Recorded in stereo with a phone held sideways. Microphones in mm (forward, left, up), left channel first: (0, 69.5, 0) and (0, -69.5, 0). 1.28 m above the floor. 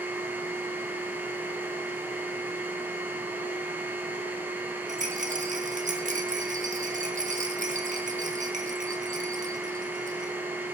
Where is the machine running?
15° right (ahead or behind), 1.2 m.